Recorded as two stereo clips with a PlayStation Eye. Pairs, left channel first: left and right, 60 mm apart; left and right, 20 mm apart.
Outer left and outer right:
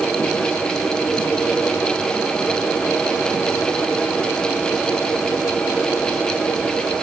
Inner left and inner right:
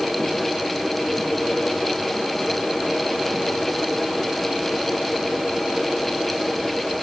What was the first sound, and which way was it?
Only background noise.